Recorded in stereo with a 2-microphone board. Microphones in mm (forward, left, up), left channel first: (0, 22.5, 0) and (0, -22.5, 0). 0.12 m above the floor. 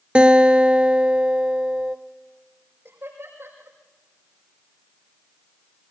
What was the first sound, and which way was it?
A guitar, 25° right (ahead or behind).